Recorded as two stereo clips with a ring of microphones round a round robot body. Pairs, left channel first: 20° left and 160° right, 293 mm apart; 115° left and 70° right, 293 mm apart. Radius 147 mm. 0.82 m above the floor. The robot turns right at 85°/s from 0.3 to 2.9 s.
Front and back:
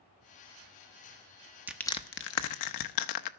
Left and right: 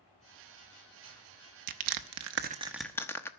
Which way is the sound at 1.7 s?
75° right.